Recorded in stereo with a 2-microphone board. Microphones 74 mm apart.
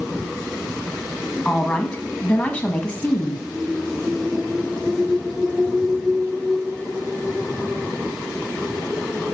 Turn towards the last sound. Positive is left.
turn(degrees=15)  # may be behind; listen again after turning